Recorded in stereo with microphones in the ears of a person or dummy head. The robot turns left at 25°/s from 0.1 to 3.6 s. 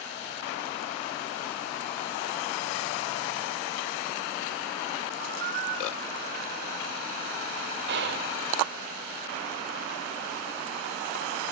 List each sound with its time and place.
5.2 s a squeak: 50° right (ahead or behind), 0.5 m
7.9 s whispering: 55° right (ahead or behind), 0.5 m